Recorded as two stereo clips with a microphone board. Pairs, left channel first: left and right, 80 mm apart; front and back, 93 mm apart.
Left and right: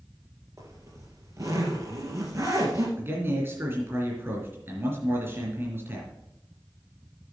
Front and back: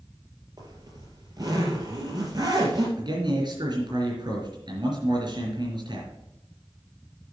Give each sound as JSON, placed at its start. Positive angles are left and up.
{"t": 0.6, "sound": "a zipper", "azimuth_deg": -135, "distance_m": 3.0}
{"t": 3.0, "sound": "a man speaking", "azimuth_deg": -150, "distance_m": 4.0}